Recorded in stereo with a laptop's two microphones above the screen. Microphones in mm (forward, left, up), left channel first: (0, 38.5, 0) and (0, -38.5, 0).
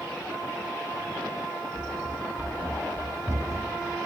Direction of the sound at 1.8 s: Centre (ahead or behind).